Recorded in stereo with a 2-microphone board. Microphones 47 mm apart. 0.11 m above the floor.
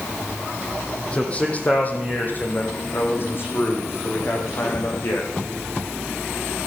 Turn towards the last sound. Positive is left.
turn(degrees=60)  # may be behind; listen again after turning